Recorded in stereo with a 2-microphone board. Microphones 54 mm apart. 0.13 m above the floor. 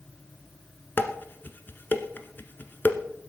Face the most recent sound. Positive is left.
turn(degrees=40)  # may be behind; listen again after turning